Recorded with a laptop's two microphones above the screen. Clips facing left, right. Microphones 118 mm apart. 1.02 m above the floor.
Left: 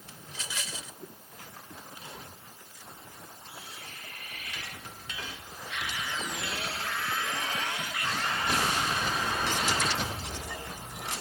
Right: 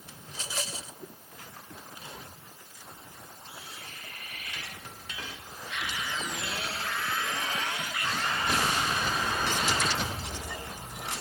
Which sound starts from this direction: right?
A rattle, at 0.3 s.